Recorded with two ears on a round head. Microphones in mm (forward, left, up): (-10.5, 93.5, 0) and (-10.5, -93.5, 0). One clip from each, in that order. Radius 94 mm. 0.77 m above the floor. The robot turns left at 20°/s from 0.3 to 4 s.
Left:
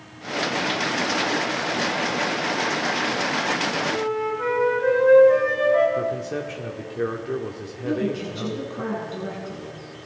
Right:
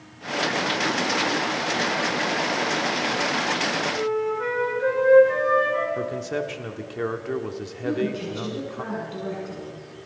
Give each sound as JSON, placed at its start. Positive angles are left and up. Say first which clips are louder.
{"t": 3.9, "sound": "a flute", "louder": "even", "side_deg": -5, "distance_m": 5.5}
{"t": 6.0, "sound": "a man speaking", "louder": "left 2 dB", "side_deg": -25, "distance_m": 1.4}
{"t": 7.8, "sound": "a woman speaking", "louder": "left 1 dB", "side_deg": 0, "distance_m": 6.5}